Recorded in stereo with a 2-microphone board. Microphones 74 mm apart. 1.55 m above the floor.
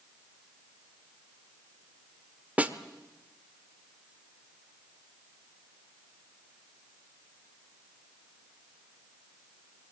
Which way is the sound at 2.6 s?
20° right (ahead or behind).